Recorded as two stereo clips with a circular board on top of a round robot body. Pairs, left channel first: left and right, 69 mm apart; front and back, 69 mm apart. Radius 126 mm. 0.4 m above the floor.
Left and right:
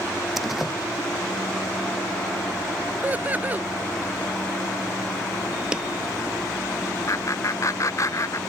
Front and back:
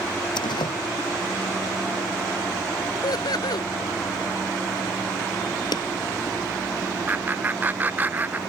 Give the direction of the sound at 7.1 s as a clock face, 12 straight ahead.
8 o'clock.